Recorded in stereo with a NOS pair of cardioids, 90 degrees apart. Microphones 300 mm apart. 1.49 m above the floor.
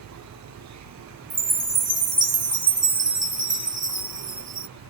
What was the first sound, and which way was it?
An insect, 60° right.